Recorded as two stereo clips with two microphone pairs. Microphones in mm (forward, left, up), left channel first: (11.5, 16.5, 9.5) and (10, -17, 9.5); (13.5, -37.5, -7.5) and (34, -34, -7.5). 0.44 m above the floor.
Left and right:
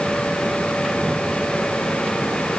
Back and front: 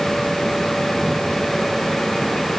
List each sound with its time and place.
Only background noise.